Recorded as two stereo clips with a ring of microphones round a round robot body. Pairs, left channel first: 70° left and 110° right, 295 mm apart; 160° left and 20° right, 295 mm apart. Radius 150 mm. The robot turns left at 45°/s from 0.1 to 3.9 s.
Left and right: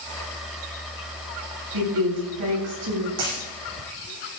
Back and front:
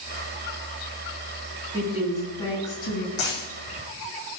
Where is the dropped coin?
145° right, 7.5 m; by 3.4 s 160° right, 7.5 m.